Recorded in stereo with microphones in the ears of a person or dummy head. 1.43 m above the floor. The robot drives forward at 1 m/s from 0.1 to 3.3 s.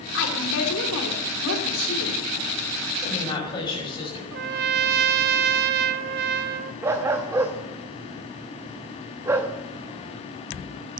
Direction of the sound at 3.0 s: 25° left (ahead or behind).